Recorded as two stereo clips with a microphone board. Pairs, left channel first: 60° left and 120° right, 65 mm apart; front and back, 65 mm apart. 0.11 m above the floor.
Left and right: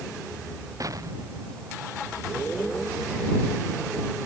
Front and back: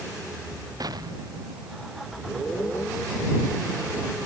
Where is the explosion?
155° right.